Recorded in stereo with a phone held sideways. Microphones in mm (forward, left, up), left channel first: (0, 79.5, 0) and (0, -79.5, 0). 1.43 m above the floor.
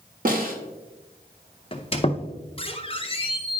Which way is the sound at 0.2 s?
60° right (ahead or behind).